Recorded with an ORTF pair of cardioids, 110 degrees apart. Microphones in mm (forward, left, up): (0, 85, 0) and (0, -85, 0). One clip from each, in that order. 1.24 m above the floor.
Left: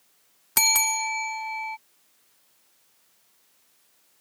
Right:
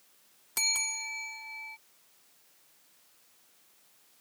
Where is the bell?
65° left.